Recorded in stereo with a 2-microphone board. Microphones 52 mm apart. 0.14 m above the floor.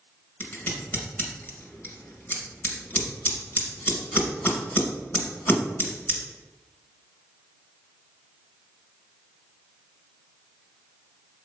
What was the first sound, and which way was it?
Scissors, 30° left (ahead or behind).